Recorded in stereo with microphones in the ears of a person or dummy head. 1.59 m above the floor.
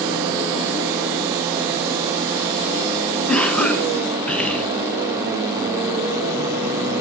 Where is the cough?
5° left (ahead or behind), 1.0 m.